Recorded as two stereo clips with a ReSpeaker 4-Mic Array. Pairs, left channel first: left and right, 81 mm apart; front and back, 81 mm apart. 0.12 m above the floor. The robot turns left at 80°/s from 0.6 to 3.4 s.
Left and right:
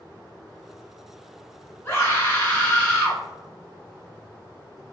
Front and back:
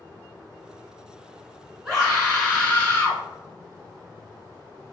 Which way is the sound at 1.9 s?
105° left.